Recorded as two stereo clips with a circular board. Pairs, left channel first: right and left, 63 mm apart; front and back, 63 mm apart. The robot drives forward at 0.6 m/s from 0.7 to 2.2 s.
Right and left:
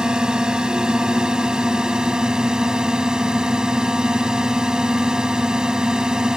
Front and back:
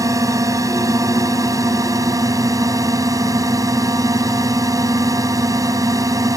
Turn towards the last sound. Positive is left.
turn(degrees=170)